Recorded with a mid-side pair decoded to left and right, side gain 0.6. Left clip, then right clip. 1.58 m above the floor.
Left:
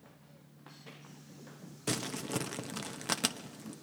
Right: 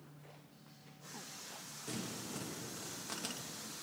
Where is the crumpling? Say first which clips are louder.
Left 9 dB; 60° left, 0.9 m.